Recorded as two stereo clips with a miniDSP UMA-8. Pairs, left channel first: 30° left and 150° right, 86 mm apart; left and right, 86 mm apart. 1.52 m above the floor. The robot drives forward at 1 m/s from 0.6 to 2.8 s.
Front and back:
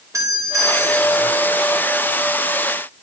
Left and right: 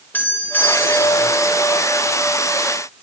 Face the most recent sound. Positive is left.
turn(degrees=165)